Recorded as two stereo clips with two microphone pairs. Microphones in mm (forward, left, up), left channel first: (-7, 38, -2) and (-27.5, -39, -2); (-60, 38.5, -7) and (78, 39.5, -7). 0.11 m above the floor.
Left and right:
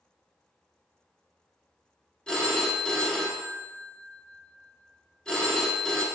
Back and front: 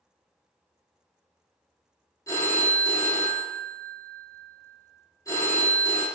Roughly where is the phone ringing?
Behind left.